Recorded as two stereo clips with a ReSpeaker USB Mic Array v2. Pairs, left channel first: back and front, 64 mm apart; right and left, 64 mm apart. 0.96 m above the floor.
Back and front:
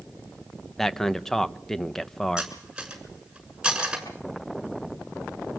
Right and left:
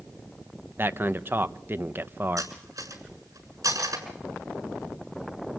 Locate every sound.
0.8 s a man speaking: 100° left, 0.8 m
2.4 s cutlery clinking: 80° left, 7 m